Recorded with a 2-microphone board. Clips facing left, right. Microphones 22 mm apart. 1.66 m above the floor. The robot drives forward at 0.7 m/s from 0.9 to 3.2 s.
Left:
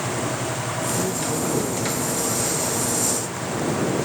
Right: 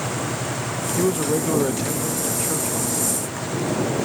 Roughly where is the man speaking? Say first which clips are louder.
Right 8 dB; right.